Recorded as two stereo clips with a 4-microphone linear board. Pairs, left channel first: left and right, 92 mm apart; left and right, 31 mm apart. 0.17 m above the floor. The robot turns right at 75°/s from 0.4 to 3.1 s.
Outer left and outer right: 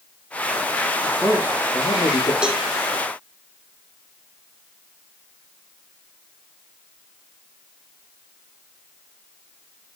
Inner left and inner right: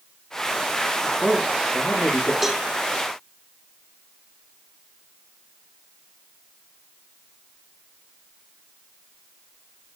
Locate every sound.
1.0 s a man speaking: 5° right, 5.5 m; by 2.3 s 95° left, 5.5 m
2.4 s a cowbell: 10° right (ahead or behind), 1.6 m; by 2.6 s 25° right (ahead or behind), 1.6 m